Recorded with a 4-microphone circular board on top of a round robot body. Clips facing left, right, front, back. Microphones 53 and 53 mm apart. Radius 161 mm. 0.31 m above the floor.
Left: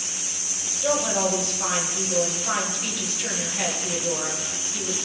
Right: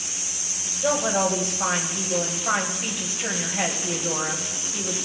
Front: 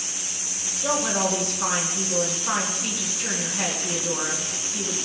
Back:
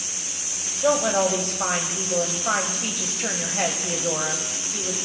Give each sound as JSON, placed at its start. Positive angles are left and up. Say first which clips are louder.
{"t": 0.8, "sound": "a woman speaking", "louder": "right 1 dB, back 4 dB", "azimuth_deg": -155, "distance_m": 2.0}